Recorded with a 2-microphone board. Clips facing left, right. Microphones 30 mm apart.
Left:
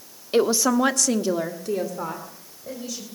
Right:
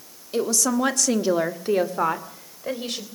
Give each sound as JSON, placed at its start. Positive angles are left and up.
{"t": 0.3, "sound": "a woman speaking", "side_deg": 40, "distance_m": 1.4}